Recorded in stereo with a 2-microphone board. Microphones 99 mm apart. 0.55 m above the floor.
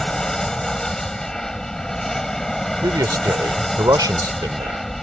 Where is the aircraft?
5° left (ahead or behind).